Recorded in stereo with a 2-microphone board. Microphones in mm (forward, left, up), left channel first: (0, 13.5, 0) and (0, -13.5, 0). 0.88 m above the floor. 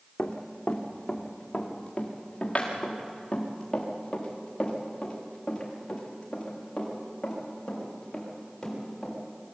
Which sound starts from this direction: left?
Running footsteps, at 0.2 s.